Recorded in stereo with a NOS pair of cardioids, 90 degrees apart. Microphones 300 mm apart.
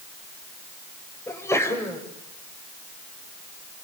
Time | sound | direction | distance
1.3 | a sneeze | 10° left | 6.5 m